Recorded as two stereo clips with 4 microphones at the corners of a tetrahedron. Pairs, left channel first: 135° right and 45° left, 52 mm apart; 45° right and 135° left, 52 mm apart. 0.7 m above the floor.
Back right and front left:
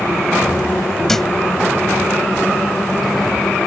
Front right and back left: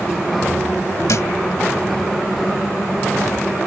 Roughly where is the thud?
Ahead right.